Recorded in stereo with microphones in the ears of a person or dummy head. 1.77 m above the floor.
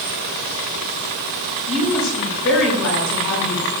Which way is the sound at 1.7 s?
80° left.